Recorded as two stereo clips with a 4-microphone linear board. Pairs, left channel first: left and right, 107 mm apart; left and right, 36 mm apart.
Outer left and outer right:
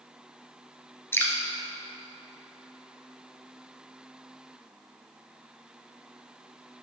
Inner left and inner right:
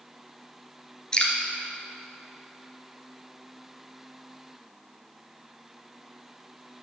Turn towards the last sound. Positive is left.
turn(degrees=20)  # may be behind; listen again after turning